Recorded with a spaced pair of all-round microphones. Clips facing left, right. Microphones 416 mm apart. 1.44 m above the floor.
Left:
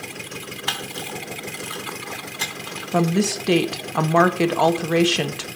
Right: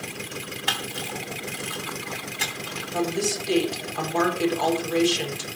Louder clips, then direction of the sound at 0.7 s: Left 1 dB; 45° right (ahead or behind).